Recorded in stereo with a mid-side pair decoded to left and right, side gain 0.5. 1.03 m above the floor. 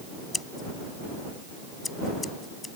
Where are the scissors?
20° left.